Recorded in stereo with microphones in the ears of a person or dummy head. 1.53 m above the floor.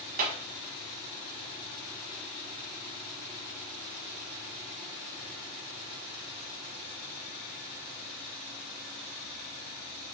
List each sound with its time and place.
0.2 s a clap: 45° right (ahead or behind), 1.2 m